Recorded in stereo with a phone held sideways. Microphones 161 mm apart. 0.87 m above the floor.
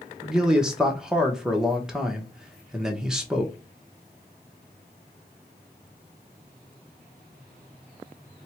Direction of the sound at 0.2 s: 5° right (ahead or behind).